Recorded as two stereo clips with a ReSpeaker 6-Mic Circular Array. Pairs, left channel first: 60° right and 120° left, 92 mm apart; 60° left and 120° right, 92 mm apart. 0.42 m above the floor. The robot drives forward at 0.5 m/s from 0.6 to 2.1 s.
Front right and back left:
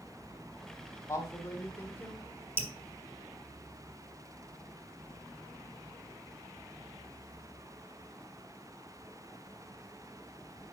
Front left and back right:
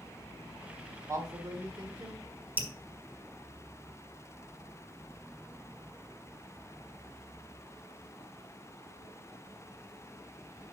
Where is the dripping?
175° left, 1.4 m.